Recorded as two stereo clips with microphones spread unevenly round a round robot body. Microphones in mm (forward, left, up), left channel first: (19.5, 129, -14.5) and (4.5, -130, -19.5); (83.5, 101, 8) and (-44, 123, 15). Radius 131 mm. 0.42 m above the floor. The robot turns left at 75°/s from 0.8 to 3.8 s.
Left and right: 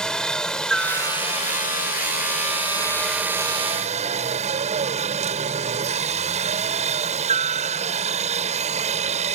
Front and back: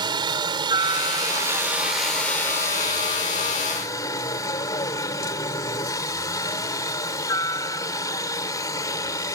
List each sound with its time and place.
0.0 s a helicopter: 170° left; by 9.4 s 55° right